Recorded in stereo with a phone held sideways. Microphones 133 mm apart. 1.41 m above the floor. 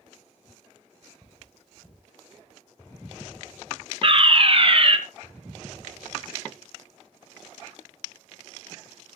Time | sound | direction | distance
1.2 | cutlery clinking | 5° left (ahead or behind) | 6 m
4.0 | a fire alarm | 45° right (ahead or behind) | 1.4 m